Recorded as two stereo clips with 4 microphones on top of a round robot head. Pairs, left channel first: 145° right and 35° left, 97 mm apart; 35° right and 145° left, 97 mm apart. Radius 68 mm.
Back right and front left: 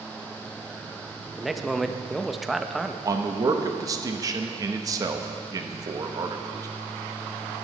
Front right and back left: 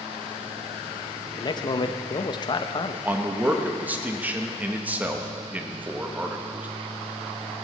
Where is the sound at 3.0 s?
75° left, 1.0 m.